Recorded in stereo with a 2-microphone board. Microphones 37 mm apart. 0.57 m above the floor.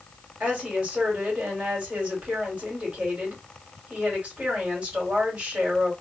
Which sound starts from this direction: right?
A woman speaking, at 0.4 s.